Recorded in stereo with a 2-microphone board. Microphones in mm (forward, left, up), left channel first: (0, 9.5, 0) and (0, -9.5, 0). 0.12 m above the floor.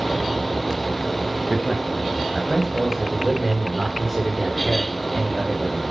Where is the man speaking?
10° right (ahead or behind), 8 m; by 5.8 s 5° left (ahead or behind), 9 m.